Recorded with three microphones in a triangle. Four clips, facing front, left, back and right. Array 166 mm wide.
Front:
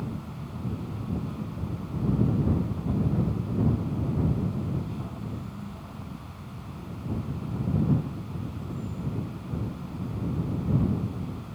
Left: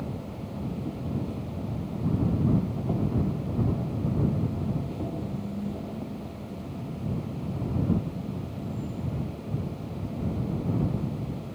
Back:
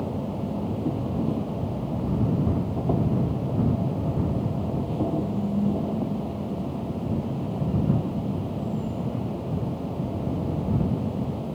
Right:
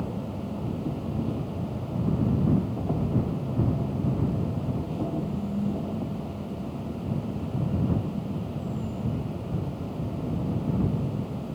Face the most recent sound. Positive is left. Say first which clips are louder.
# right 3 dB, back 8 dB
turn(degrees=-170)